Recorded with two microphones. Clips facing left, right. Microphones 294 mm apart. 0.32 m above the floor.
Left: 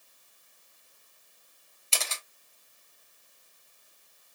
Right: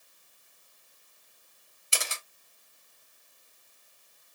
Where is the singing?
No singing in this recording.